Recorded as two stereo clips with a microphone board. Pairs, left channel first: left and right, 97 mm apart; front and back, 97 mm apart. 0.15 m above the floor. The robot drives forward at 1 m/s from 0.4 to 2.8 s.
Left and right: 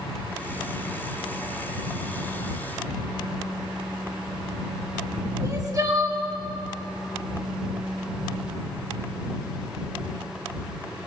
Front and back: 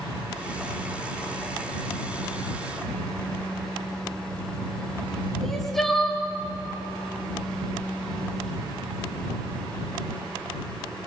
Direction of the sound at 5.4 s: 85° right.